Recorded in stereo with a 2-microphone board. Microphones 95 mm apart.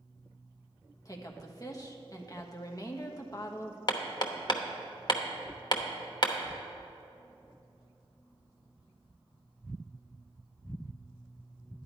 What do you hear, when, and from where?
1.1 s a woman speaking: 40° left (ahead or behind), 1.3 m
3.9 s hammering: 45° left (ahead or behind), 0.9 m